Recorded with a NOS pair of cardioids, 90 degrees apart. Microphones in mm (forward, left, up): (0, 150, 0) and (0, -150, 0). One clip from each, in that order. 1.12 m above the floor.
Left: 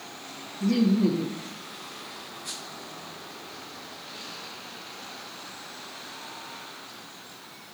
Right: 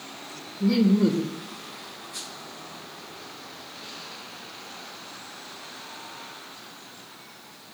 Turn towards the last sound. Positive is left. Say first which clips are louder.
# right 2 dB
turn(degrees=-40)